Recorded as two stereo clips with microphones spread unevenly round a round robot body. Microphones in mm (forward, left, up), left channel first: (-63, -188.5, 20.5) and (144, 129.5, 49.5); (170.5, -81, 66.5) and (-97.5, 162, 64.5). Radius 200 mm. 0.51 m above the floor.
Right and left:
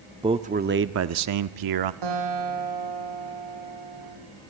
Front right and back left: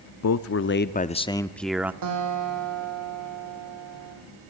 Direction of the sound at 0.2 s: 20° right.